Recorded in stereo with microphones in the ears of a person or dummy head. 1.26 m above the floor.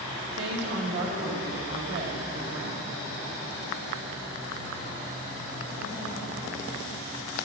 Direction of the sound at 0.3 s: 80° right.